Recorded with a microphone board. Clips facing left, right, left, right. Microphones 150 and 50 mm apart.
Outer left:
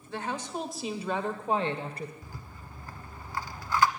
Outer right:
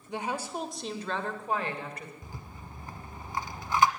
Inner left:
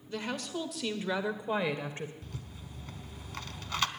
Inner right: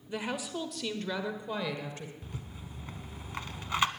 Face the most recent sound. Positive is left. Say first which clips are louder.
# outer right 1 dB, inner right 1 dB
turn(degrees=-20)  # may be behind; listen again after turning